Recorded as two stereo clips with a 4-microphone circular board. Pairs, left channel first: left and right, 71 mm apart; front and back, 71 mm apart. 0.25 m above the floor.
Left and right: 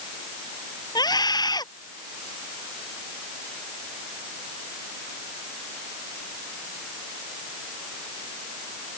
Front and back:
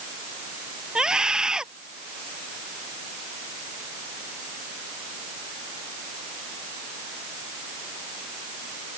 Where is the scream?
100° left.